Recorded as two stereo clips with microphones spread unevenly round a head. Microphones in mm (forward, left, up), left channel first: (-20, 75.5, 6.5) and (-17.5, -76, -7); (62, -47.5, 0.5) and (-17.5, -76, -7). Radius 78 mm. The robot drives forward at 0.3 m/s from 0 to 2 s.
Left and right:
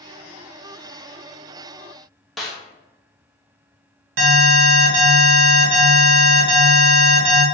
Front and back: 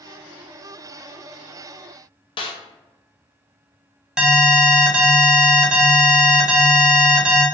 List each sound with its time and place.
2.4 s a snare drum: straight ahead, 0.6 m
4.2 s an alarm: 80° right, 1.3 m